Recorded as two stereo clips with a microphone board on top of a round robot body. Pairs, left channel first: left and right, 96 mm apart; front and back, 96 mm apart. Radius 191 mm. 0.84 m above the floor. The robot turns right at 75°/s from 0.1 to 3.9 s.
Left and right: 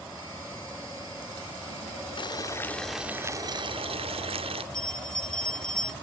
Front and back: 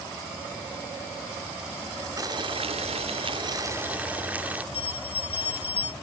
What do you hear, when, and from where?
2.2 s boiling: 125° left; by 4.6 s 105° right
4.7 s a bell: 10° left